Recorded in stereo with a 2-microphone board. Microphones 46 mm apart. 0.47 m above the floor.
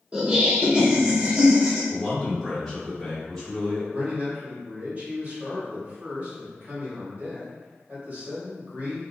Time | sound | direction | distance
0.1 | laughter | 20° right (ahead or behind) | 0.9 m
1.9 | a man speaking | 10° left (ahead or behind) | 1.7 m
3.9 | a man speaking | 40° right (ahead or behind) | 1.5 m